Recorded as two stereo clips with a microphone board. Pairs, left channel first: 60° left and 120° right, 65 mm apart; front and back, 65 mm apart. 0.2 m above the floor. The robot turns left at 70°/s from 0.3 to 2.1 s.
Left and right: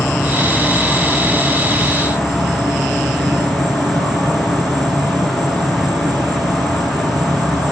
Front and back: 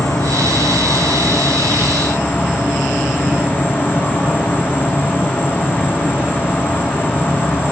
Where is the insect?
15° left, 2 m; by 7.7 s 115° right, 2 m.